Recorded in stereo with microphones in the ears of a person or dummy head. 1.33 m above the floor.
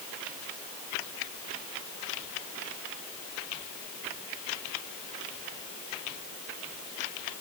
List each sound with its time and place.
Only background noise.